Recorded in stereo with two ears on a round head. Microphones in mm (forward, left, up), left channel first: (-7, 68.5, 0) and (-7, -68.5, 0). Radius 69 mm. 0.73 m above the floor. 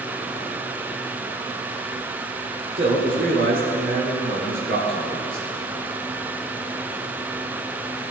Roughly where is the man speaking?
Right.